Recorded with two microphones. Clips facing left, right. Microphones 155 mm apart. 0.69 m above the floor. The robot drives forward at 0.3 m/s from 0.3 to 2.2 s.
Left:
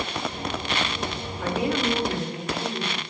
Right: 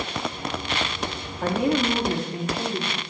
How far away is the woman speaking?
About 1.0 m.